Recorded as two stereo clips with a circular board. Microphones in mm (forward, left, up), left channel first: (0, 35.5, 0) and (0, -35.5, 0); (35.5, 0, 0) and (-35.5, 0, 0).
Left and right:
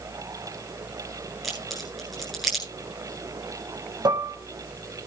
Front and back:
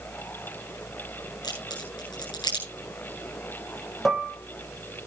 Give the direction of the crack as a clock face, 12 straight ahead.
12 o'clock.